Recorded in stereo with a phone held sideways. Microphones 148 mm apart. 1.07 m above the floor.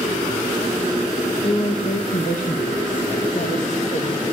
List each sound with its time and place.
1.4 s a woman speaking: 45° left (ahead or behind), 1.3 m